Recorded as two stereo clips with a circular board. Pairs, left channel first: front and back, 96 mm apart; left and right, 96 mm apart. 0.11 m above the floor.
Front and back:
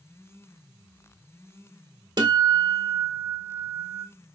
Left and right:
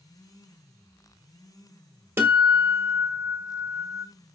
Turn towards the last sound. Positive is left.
turn(degrees=-150)